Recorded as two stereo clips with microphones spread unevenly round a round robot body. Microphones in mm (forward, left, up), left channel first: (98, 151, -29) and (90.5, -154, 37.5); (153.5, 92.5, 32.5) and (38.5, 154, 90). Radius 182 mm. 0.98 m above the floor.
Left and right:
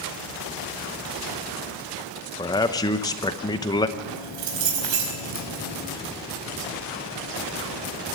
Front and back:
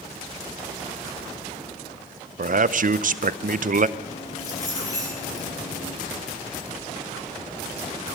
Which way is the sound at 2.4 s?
140° left.